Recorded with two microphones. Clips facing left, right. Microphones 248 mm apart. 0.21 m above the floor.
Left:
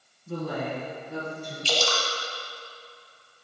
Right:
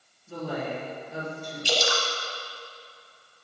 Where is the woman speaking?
65° left (ahead or behind), 2.5 m; by 1.6 s 60° left (ahead or behind), 3 m.